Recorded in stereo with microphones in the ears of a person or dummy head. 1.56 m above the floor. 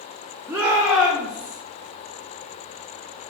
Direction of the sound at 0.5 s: 15° right (ahead or behind).